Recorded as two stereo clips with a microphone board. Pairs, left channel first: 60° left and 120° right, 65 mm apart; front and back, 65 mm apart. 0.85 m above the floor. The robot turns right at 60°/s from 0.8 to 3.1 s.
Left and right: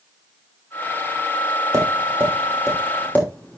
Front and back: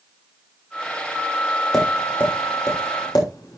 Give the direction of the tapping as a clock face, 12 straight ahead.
3 o'clock.